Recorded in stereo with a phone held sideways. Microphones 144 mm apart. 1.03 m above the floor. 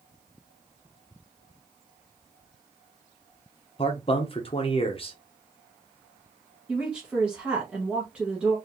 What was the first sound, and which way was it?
A man speaking, 40° left (ahead or behind).